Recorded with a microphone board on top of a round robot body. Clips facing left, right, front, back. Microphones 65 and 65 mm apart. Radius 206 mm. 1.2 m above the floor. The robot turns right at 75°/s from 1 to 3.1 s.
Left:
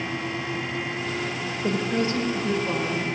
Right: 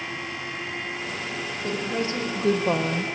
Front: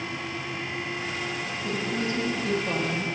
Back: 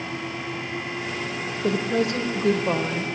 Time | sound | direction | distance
1.6 | a woman speaking | 165° left | 0.8 m